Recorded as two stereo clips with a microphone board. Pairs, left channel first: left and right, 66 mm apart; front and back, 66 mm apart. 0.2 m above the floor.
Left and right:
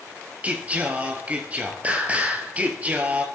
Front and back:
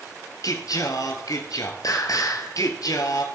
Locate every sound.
0.4 s singing: 20° right, 1.6 m